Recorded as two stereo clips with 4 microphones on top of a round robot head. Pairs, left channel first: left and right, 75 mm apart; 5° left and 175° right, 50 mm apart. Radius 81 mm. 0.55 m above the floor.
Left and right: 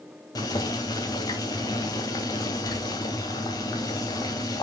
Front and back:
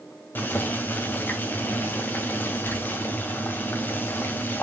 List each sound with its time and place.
0.3 s boiling: 50° left, 2.5 m